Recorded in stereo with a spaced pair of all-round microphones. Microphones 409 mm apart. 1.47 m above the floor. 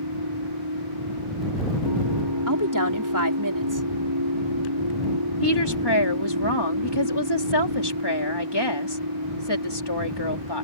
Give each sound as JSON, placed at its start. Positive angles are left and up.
{"t": 0.0, "sound": "a machine running", "side_deg": -85}
{"t": 2.5, "sound": "a woman speaking", "side_deg": -50}
{"t": 5.4, "sound": "a woman speaking", "side_deg": 75}